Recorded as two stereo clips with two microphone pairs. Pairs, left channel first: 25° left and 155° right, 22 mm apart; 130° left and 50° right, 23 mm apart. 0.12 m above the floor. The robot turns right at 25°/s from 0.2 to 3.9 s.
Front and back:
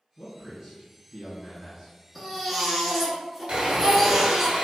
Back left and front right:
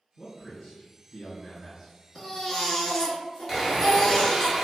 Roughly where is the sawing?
Behind right.